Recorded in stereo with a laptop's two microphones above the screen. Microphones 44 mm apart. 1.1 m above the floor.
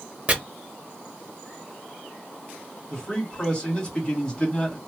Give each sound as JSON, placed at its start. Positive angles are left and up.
{"t": 0.3, "sound": "chopping", "side_deg": -30, "distance_m": 0.7}
{"t": 2.9, "sound": "a man speaking", "side_deg": 15, "distance_m": 1.4}